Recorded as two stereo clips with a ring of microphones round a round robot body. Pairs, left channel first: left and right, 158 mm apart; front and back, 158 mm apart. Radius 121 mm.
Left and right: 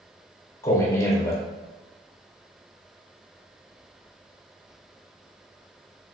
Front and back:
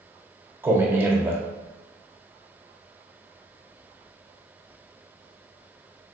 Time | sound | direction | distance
0.6 | a man speaking | 125° left | 0.9 m